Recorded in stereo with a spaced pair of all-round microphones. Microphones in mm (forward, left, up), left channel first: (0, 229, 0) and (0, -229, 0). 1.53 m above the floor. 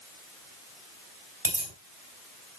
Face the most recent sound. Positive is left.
turn(degrees=-60)  # may be behind; listen again after turning